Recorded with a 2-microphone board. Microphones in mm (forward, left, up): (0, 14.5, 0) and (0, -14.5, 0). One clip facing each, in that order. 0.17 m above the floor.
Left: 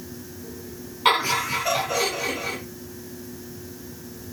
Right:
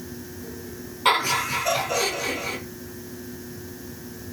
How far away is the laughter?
About 1.9 m.